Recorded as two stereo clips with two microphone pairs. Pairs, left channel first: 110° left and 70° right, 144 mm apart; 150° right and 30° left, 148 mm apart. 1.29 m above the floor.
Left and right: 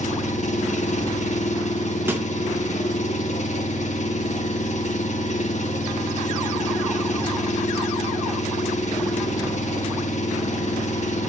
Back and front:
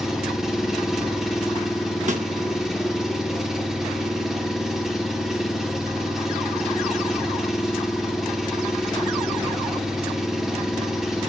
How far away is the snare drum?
About 1.4 m.